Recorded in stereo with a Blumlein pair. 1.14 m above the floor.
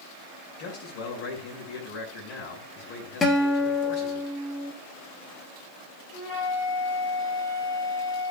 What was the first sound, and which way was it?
A man speaking, 40° left.